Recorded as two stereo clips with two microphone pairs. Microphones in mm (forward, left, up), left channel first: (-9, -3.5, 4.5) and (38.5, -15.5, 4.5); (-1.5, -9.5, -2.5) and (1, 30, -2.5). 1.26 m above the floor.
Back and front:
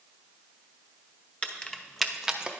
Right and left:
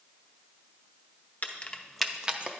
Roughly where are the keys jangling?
Behind right.